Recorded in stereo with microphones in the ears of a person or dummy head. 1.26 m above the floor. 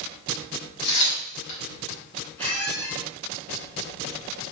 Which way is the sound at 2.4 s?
15° left (ahead or behind).